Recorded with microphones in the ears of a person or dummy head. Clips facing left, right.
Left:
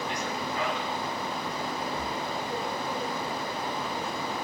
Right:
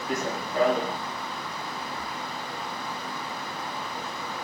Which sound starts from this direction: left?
Breathing, at 1.9 s.